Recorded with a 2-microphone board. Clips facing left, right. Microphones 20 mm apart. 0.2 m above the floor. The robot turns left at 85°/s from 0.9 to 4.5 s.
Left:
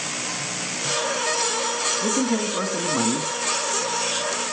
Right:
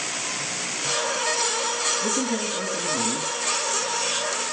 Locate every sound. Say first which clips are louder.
2.0 s a man speaking: left 2 dB; 150° left, 1.6 m; by 3.3 s 40° left, 1.6 m